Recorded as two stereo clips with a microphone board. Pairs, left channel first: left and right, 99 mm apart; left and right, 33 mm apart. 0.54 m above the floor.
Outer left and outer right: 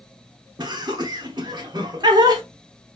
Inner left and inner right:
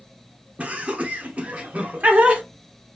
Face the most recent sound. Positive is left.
turn(degrees=-45)  # may be behind; listen again after turning